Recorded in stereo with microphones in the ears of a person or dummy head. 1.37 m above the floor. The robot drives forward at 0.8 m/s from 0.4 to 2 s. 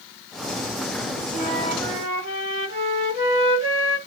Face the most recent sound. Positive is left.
turn(degrees=-35)  # may be behind; listen again after turning